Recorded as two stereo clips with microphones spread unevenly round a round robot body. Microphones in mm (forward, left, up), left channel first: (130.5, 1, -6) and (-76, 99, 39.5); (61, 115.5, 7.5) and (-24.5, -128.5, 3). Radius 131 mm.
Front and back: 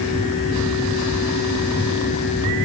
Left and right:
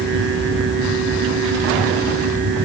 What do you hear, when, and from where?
Only background noise.